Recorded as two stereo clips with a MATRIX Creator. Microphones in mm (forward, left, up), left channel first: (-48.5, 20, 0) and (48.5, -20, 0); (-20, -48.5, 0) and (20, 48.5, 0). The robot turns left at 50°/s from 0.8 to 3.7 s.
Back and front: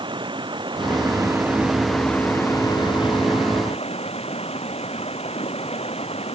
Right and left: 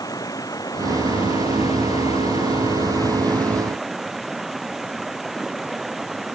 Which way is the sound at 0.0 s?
60° right.